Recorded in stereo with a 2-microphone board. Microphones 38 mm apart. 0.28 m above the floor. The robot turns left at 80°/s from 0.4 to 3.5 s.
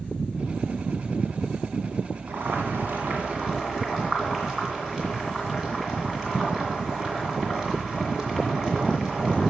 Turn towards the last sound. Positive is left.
turn(degrees=-160)